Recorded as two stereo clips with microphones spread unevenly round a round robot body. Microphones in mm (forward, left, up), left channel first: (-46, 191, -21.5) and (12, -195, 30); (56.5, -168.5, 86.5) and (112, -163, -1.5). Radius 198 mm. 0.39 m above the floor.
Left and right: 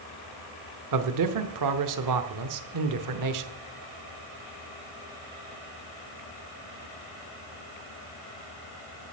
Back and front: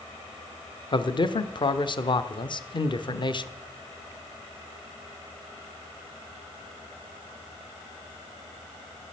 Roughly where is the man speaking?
Right.